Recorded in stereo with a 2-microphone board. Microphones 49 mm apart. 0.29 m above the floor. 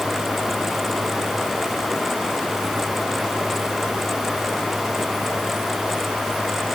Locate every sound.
Only background noise.